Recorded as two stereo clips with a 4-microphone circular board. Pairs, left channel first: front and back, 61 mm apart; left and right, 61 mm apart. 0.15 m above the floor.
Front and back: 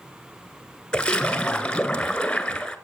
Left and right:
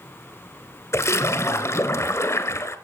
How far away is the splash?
About 1.1 m.